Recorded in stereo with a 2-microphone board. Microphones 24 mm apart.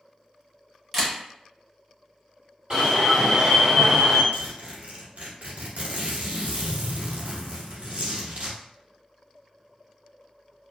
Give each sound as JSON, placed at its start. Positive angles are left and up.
{"t": 0.9, "sound": "a camera shutter", "side_deg": -10, "distance_m": 0.9}
{"t": 2.7, "sound": "an alarm", "side_deg": -30, "distance_m": 1.7}
{"t": 4.3, "sound": "a zipper", "side_deg": -70, "distance_m": 1.0}